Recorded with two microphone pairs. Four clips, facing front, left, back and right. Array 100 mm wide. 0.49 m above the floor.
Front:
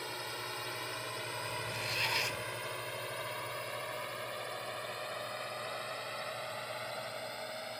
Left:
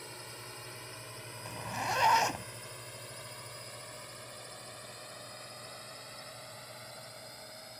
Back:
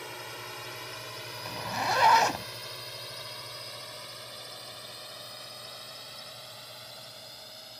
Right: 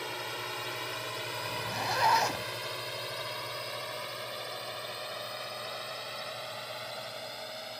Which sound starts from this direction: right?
A drone, at 0.0 s.